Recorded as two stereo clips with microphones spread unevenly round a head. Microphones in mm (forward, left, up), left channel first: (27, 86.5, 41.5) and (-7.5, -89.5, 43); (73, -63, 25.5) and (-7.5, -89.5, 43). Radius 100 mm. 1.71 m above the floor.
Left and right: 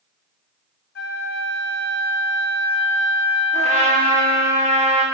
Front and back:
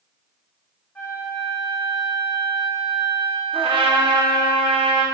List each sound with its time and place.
0.9 s a flute: 110° left, 1.5 m
3.5 s a trumpet: 160° right, 1.6 m